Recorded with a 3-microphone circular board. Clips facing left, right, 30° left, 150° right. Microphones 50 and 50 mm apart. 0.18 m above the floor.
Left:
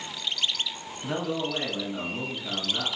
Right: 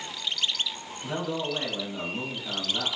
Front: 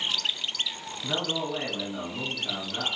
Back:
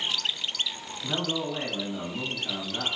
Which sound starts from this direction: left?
A man speaking, at 1.0 s.